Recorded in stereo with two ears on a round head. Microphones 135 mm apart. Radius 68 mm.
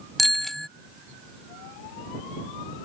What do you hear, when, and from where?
0.2 s a bicycle bell: centre (ahead or behind)